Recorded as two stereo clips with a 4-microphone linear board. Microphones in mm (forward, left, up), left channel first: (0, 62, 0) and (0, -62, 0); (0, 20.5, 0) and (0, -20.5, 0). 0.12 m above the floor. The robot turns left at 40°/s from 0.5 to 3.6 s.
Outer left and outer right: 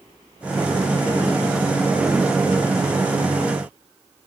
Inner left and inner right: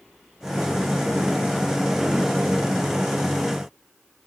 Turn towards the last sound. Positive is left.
No sound to turn to.